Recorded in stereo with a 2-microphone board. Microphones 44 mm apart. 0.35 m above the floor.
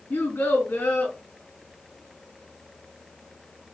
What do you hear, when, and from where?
0.1 s a child speaking: 70° left (ahead or behind), 2.5 m